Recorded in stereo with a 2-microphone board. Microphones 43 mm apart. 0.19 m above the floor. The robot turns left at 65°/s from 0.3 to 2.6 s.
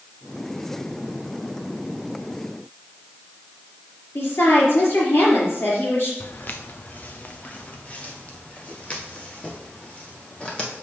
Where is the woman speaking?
55° left (ahead or behind), 4.5 m.